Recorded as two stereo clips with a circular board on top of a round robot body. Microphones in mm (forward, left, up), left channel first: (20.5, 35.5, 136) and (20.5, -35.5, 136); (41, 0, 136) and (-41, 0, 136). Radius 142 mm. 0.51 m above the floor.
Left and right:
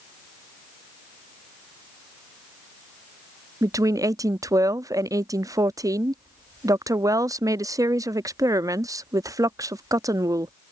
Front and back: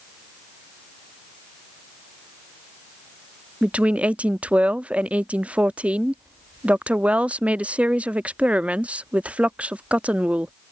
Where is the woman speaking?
110° right.